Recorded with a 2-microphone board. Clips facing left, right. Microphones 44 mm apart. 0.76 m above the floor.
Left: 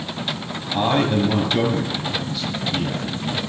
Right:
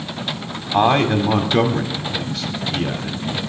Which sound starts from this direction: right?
A man speaking, at 0.7 s.